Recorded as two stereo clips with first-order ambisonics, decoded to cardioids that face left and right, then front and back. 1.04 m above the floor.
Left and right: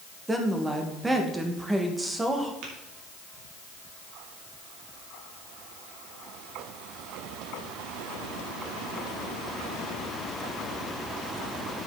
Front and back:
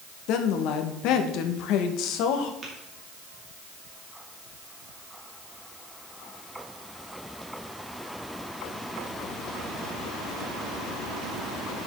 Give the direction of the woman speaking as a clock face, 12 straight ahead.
12 o'clock.